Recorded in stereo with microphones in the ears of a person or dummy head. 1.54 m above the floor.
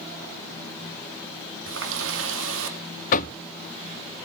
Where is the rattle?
I don't hear a rattle.